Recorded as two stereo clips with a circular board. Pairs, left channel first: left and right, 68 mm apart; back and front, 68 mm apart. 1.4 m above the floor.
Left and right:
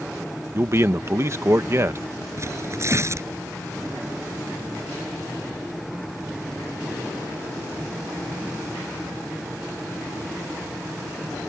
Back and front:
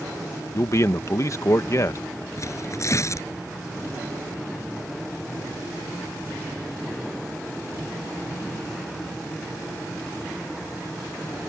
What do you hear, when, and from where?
0.5 s a man speaking: 135° right
2.4 s tearing paper: 135° right